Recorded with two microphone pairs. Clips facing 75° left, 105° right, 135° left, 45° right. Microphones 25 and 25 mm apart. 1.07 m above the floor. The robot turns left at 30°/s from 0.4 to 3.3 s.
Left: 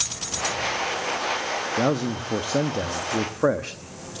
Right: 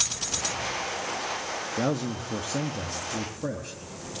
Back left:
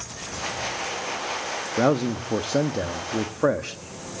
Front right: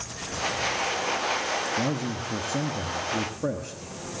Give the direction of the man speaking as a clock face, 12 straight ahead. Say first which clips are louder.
Left 4 dB, back left 6 dB; 7 o'clock.